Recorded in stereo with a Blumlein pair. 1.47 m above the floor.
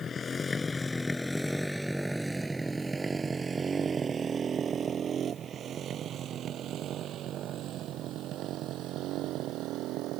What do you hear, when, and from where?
0.0 s a motorcycle: 20° left; by 10.2 s 40° right